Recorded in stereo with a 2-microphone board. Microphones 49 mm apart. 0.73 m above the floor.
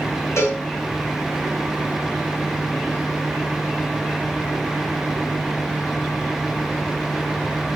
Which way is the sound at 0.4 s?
75° left (ahead or behind).